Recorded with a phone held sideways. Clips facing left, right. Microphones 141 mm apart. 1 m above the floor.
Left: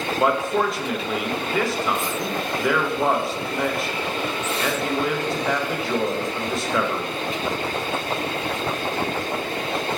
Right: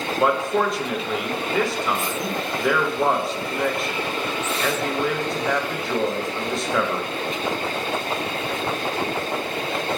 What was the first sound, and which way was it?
A man speaking, centre (ahead or behind).